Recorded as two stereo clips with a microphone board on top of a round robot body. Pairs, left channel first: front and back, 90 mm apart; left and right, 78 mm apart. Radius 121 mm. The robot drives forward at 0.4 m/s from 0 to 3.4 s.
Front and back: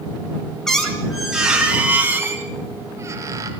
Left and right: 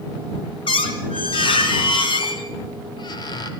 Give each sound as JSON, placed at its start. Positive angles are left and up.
{"t": 0.7, "sound": "a squeak", "azimuth_deg": 85, "distance_m": 1.7}